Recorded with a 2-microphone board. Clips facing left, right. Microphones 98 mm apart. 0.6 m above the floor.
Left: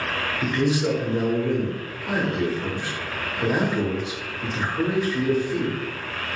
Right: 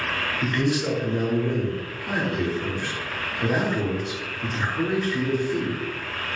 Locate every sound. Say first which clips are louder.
0.4 s a man speaking: left 2 dB; 10° left (ahead or behind), 0.8 m